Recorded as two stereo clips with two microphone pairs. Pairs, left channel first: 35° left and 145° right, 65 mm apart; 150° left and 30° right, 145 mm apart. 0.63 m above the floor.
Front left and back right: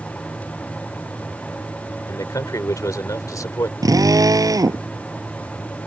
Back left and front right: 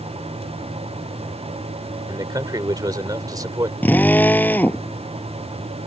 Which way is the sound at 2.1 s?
35° left.